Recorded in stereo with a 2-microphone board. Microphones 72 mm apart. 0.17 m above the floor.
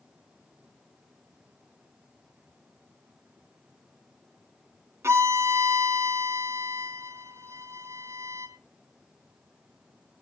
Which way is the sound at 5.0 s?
35° right (ahead or behind).